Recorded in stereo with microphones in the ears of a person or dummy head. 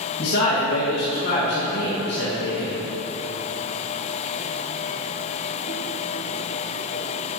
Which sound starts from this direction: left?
A man speaking, at 0.2 s.